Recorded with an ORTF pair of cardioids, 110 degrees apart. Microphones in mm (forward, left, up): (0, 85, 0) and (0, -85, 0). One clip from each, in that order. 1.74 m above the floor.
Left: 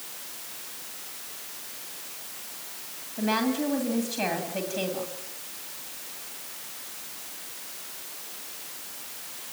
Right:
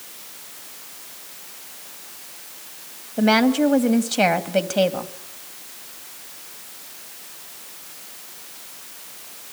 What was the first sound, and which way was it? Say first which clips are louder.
A woman speaking: right 9 dB; 65° right.